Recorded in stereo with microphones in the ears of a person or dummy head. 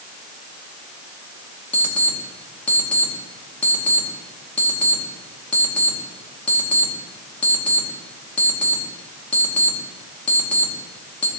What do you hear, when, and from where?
1.7 s an alarm clock: 10° left (ahead or behind), 2.5 m